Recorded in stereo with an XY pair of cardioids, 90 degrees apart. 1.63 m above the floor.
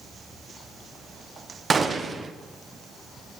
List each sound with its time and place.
1.7 s a gunshot: 45° right, 1.0 m